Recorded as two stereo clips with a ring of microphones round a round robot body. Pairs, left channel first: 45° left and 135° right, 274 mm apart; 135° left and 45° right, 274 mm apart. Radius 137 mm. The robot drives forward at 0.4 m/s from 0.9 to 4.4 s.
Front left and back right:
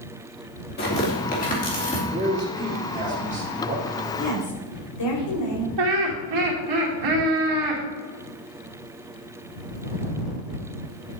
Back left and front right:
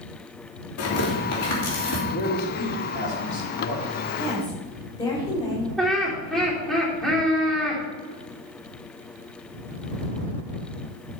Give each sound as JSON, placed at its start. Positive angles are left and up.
{"t": 0.8, "sound": "tearing paper", "azimuth_deg": 100, "distance_m": 2.5}
{"t": 2.1, "sound": "a man speaking", "azimuth_deg": 155, "distance_m": 1.6}
{"t": 4.2, "sound": "a woman speaking", "azimuth_deg": 55, "distance_m": 3.5}
{"t": 5.8, "sound": "laughter", "azimuth_deg": -135, "distance_m": 3.0}